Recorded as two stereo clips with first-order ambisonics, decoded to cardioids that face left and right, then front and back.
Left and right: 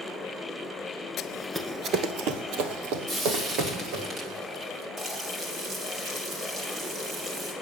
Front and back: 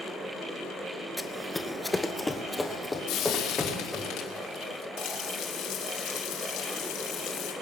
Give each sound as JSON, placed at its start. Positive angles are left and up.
{"t": 1.2, "sound": "running footsteps", "azimuth_deg": 85, "distance_m": 0.9}
{"t": 3.1, "sound": "frying", "azimuth_deg": -25, "distance_m": 2.0}
{"t": 5.0, "sound": "frying", "azimuth_deg": -25, "distance_m": 3.0}